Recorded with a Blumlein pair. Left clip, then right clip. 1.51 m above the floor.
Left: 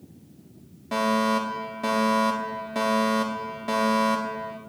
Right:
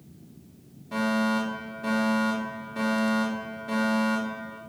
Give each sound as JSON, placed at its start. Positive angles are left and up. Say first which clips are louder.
{"t": 0.9, "sound": "a fire alarm", "louder": "left 4 dB", "azimuth_deg": 30, "distance_m": 3.5}